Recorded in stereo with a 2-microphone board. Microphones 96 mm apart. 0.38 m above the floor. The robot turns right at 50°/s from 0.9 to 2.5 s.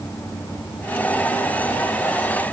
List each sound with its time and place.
Only background noise.